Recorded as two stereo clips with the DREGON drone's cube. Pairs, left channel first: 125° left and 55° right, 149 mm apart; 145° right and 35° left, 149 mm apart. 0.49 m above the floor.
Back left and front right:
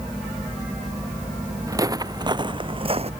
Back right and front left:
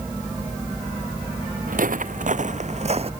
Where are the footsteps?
10° left; by 3.1 s 15° right.